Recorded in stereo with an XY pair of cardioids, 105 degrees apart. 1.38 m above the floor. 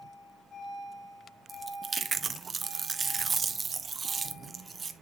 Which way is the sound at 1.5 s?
35° right.